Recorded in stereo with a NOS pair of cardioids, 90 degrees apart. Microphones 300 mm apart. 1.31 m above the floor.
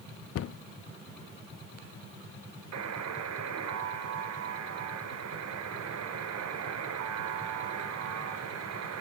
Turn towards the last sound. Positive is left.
turn(degrees=-65)